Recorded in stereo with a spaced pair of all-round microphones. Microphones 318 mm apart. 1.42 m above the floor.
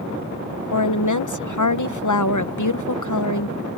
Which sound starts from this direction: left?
A woman speaking, at 0.7 s.